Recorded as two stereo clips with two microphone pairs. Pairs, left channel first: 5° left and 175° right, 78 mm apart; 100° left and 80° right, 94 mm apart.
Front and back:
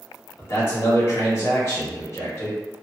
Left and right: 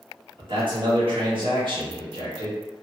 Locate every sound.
0.4 s a man speaking: 50° right, 1.3 m